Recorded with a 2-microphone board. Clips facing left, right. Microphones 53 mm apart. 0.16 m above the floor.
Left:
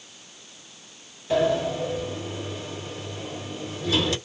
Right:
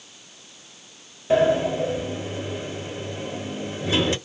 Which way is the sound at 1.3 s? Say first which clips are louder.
Right 3 dB; 25° right (ahead or behind).